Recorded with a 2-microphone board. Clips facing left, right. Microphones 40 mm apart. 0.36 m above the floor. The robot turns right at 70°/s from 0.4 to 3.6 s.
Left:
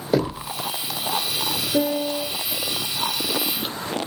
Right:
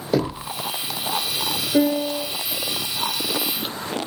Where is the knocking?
5° left (ahead or behind), 1.2 m; by 0.5 s 10° left (ahead or behind), 1.2 m.